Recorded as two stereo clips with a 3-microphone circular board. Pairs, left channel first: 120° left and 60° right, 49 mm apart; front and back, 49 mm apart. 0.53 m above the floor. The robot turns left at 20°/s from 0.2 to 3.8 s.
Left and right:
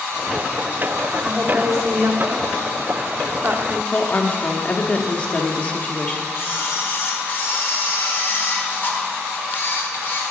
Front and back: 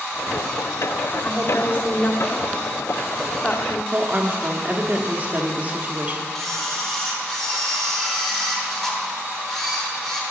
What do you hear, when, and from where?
1.2 s a woman speaking: straight ahead, 1.2 m; by 3.8 s 50° right, 1.2 m
3.9 s a woman speaking: 155° left, 1.0 m
6.3 s a camera shutter: 85° left, 1.6 m